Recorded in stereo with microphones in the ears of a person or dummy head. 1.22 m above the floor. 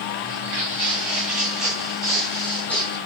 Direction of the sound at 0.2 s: 15° right (ahead or behind).